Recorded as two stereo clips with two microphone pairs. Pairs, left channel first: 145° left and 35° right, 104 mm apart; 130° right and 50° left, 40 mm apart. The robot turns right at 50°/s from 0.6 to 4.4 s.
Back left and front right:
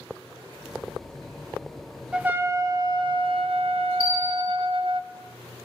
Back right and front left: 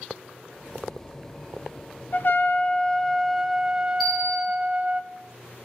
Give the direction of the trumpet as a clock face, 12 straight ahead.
4 o'clock.